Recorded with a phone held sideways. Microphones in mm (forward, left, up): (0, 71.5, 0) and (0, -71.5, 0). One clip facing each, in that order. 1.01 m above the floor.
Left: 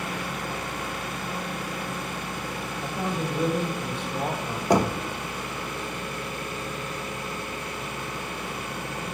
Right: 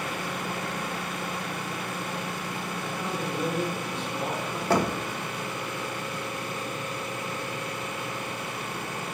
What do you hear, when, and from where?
2.8 s a man speaking: 35° left (ahead or behind), 3 m
4.7 s knocking: 15° left (ahead or behind), 0.7 m